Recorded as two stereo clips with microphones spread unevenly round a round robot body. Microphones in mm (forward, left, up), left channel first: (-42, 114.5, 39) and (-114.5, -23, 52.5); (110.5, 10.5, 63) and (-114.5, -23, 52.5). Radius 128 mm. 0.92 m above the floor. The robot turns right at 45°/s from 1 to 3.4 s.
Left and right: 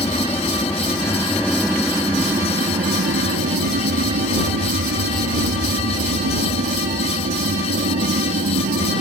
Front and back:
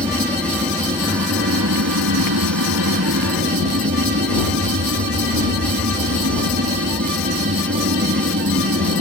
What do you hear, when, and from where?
0.0 s an aircraft: 125° left; by 9.0 s 125° right